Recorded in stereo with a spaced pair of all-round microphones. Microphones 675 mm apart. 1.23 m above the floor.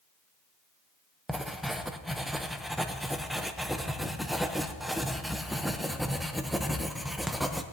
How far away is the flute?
No flute in this recording.